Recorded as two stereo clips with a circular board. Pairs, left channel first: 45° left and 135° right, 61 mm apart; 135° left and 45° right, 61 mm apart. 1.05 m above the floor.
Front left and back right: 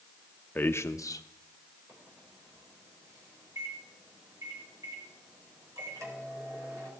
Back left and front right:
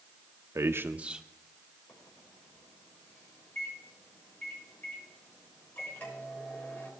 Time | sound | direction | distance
0.6 | a man speaking | 15° right | 0.6 m
1.9 | a microwave | 160° right | 4 m